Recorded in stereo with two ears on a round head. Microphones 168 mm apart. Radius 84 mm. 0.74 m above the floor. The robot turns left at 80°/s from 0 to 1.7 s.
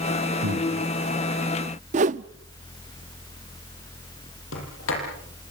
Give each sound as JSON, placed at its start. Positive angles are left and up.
{"t": 0.4, "sound": "breathing", "side_deg": -85, "distance_m": 6.0}
{"t": 1.9, "sound": "a whoosh", "side_deg": -40, "distance_m": 0.6}
{"t": 4.5, "sound": "a sliding door", "side_deg": 85, "distance_m": 8.5}